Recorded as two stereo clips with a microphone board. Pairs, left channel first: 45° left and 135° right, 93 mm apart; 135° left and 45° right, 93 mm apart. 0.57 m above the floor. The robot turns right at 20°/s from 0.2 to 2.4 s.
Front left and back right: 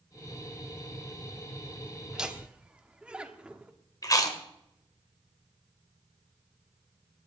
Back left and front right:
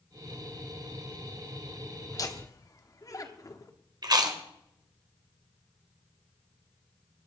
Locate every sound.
2.1 s laughter: 145° left, 1.2 m; by 3.7 s 155° left, 1.2 m
4.0 s chewing: 5° right, 1.5 m